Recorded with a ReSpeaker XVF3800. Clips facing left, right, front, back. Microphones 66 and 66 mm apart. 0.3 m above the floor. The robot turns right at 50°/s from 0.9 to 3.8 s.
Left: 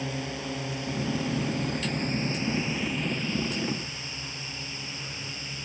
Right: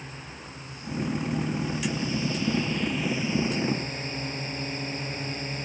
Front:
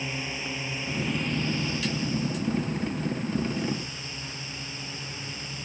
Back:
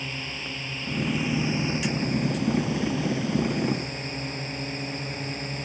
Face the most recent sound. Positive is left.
turn(degrees=-135)